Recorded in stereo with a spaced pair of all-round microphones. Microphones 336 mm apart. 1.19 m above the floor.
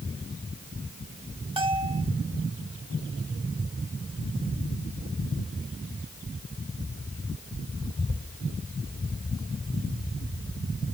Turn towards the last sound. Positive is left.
turn(degrees=-15)  # may be behind; listen again after turning